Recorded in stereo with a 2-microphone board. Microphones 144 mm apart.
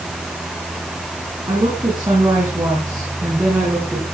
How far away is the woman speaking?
About 4 m.